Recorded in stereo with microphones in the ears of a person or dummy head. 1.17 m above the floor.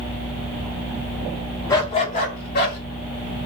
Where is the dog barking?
15° left (ahead or behind), 0.7 m; by 2.8 s 55° left (ahead or behind), 1.3 m.